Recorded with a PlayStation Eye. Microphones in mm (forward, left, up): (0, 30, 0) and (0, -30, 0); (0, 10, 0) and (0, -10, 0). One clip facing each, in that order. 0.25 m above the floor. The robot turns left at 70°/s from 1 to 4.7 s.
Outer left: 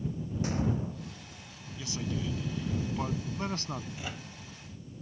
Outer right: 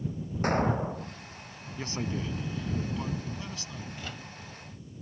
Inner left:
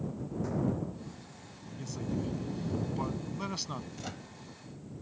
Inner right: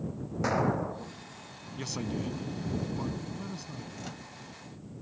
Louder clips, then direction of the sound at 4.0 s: Even, even; 10° left (ahead or behind).